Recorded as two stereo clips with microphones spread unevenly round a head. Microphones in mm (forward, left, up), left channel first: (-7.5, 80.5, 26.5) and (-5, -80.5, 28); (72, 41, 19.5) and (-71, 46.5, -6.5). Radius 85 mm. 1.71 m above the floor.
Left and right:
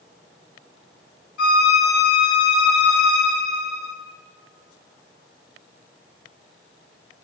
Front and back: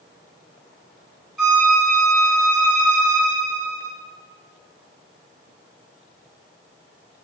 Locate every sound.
1.4 s a violin: 90° left, 5 m